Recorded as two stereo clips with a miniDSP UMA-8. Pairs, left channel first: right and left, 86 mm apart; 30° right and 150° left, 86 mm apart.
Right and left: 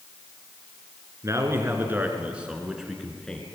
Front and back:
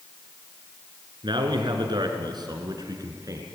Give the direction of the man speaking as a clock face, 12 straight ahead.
7 o'clock.